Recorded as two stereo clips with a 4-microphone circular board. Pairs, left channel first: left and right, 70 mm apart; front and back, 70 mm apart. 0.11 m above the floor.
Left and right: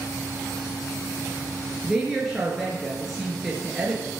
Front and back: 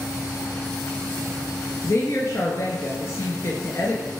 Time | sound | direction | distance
1.8 | a woman speaking | 5° right | 1.7 m